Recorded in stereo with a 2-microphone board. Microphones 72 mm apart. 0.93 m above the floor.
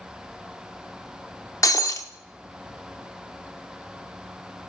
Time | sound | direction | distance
1.6 | breaking glass | 50° left (ahead or behind) | 0.7 m